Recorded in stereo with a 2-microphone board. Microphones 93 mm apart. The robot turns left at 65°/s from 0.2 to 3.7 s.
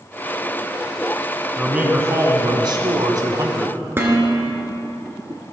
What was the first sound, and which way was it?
A man speaking, 10° right.